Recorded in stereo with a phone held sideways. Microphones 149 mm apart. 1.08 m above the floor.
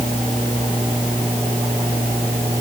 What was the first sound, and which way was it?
Only background noise.